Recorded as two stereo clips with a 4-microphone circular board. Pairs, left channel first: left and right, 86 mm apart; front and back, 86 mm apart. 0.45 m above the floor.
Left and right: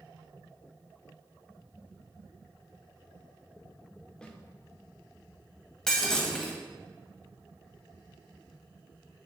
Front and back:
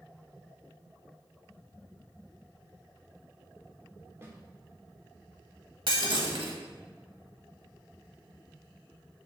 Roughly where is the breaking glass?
Behind.